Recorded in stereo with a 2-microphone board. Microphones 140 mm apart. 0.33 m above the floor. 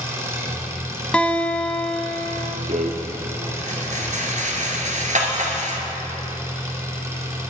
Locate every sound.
0.0 s an engine running: 20° right (ahead or behind), 2.0 m
1.1 s a guitar: 10° left (ahead or behind), 0.8 m
2.7 s a rattle: 60° right (ahead or behind), 1.7 m